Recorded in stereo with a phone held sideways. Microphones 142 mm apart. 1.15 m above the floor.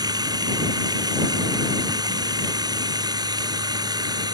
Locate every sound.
0.0 s running water: 30° right (ahead or behind)